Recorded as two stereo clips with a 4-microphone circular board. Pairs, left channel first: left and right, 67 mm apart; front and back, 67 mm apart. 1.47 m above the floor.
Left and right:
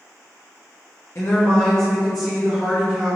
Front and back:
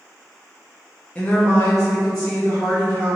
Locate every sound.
1.1 s a woman speaking: 60° left, 0.5 m; by 3.2 s 35° right, 1.1 m